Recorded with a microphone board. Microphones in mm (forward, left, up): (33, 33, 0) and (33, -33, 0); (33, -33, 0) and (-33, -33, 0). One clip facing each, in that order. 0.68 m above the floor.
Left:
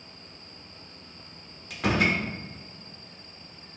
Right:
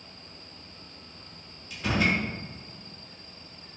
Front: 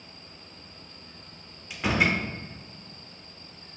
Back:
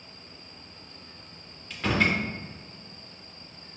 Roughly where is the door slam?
Left.